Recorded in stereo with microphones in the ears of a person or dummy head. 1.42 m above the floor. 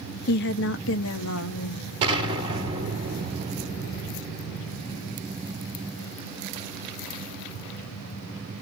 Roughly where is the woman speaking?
Left.